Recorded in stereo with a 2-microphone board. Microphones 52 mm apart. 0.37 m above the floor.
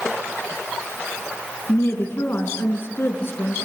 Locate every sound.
1.7 s a woman speaking: 50° left (ahead or behind), 4 m